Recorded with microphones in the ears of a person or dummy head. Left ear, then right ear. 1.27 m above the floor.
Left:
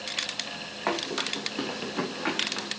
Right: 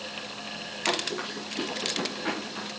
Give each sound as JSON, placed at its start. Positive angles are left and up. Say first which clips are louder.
{"t": 0.9, "sound": "running footsteps", "louder": "left 1 dB", "side_deg": 35, "distance_m": 2.5}